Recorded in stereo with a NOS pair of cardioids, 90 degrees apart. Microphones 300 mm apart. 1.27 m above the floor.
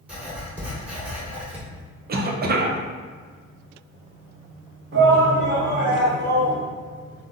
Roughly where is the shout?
Ahead right.